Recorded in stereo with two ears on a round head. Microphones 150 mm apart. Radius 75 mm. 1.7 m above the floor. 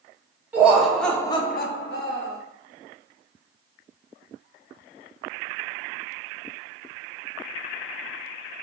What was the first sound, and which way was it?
Laughter, 10° right (ahead or behind).